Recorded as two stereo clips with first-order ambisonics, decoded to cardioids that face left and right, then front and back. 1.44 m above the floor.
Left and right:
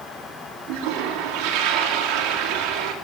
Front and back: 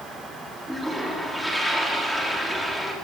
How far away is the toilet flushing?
About 4 m.